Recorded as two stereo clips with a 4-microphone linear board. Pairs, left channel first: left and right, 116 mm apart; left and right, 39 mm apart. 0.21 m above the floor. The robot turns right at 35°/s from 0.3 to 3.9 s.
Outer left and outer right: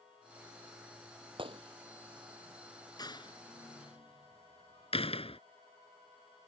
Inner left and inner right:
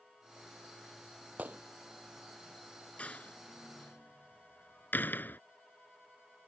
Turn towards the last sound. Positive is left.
turn(degrees=60)  # may be behind; listen again after turning